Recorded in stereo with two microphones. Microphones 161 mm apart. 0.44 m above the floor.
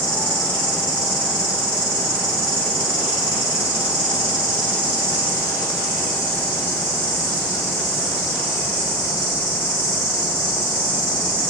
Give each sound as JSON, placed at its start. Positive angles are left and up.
{"t": 0.0, "sound": "an insect", "side_deg": 55, "distance_m": 1.6}